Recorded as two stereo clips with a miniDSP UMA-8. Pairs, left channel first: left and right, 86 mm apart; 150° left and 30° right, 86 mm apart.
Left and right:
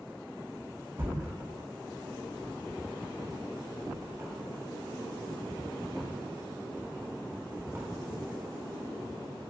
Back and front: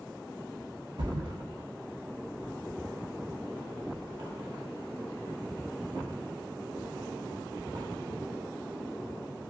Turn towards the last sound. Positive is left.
turn(degrees=-35)